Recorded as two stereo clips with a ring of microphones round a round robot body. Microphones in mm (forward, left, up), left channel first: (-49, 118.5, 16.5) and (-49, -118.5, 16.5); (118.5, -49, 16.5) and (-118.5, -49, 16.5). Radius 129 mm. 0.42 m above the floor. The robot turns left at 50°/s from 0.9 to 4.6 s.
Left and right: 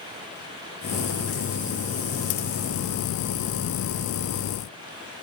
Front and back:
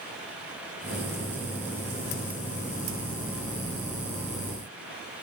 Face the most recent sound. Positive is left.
No sound to turn to.